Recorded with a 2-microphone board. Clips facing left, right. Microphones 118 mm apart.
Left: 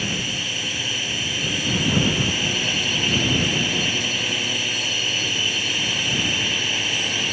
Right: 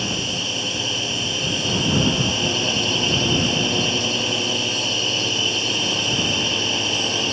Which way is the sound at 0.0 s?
25° right (ahead or behind).